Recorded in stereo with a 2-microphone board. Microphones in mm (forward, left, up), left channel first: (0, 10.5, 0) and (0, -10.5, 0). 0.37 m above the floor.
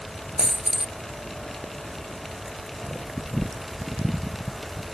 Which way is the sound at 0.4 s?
35° right (ahead or behind).